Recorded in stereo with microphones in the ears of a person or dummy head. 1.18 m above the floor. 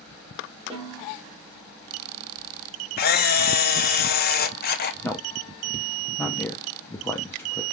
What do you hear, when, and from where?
0.7 s a snare drum: 25° right (ahead or behind), 2.5 m
3.0 s a camera shutter: 45° left (ahead or behind), 0.7 m
5.0 s a man speaking: 10° left (ahead or behind), 0.5 m